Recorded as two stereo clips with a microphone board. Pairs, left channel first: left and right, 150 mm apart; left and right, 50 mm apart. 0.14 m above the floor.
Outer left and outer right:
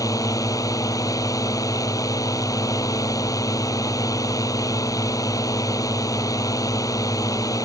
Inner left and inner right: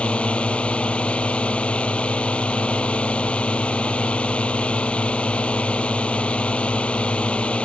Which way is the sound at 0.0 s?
20° left (ahead or behind).